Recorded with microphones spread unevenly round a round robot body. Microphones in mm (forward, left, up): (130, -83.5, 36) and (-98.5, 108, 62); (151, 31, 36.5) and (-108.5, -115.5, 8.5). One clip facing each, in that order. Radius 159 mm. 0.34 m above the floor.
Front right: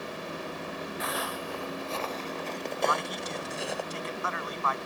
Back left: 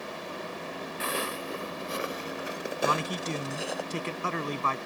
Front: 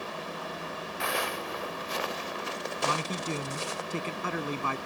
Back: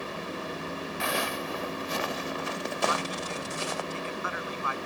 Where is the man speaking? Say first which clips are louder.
Back left 3 dB, front 1 dB; 85° left.